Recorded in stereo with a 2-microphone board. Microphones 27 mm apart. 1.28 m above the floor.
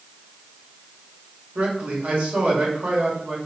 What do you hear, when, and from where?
1.6 s a man speaking: 75° right (ahead or behind), 1.4 m